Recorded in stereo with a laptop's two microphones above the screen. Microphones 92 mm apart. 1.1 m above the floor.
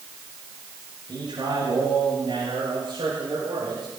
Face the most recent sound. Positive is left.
turn(degrees=-70)  # may be behind; listen again after turning